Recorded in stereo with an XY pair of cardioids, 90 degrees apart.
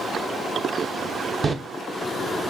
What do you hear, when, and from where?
1.4 s a door slam: 35° right, 0.7 m